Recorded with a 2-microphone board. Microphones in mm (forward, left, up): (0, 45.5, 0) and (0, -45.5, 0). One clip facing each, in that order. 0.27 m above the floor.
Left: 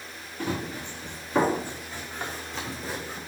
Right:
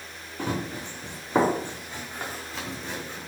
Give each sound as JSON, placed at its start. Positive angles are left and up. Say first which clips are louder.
{"t": 0.4, "sound": "running footsteps", "louder": "right 1 dB", "side_deg": -40, "distance_m": 1.9}